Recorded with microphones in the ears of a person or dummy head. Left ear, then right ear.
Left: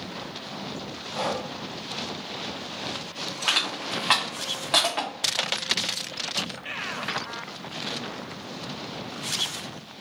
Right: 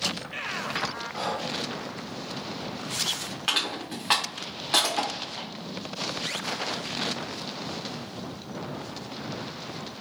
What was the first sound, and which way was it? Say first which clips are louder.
Breathing: left 6 dB; 45° left (ahead or behind).